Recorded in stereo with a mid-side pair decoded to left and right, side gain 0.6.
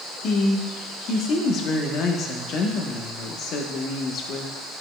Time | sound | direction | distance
0.2 | a woman speaking | 55° left | 1.2 m